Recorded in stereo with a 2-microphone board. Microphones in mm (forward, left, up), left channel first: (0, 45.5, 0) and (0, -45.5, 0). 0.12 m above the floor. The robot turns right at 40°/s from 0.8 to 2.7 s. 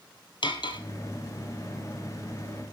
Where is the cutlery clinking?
60° left (ahead or behind), 1.7 m.